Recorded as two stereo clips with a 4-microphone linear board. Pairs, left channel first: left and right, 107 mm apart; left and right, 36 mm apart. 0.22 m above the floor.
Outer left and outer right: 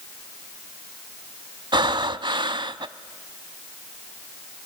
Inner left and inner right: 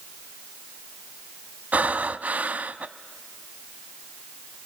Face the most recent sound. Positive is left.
turn(degrees=-50)  # may be behind; listen again after turning